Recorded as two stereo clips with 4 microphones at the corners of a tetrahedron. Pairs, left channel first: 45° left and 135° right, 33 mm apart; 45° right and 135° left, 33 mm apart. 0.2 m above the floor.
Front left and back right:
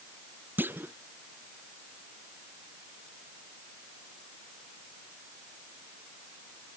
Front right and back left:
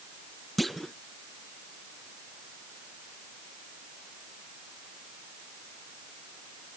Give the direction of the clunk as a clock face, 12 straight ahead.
4 o'clock.